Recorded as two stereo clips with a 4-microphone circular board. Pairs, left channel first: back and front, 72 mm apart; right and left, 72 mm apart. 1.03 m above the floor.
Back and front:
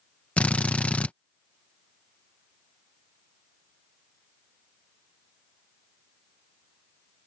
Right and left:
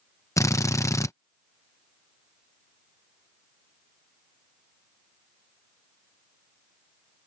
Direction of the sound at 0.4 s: 115° right.